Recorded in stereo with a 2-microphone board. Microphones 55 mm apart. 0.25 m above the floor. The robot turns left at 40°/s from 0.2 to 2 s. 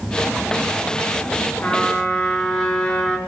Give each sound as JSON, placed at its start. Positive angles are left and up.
{"t": 1.6, "sound": "a trumpet", "side_deg": 35, "distance_m": 5.0}